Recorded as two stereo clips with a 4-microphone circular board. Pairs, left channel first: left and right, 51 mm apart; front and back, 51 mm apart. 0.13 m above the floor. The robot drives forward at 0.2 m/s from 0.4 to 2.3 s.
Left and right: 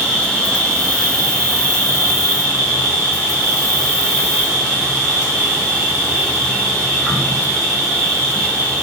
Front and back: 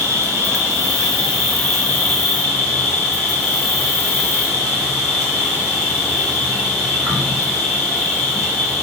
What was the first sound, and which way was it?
An insect, 160° left.